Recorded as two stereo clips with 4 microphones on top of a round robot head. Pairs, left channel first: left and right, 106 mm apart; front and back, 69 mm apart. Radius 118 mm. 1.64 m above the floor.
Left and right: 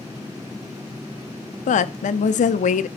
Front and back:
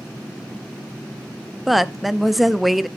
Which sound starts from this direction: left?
A woman speaking, at 1.7 s.